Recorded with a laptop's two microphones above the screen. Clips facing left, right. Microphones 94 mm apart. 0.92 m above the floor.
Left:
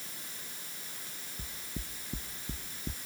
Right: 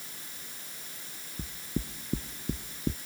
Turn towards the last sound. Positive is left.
turn(degrees=-40)  # may be behind; listen again after turning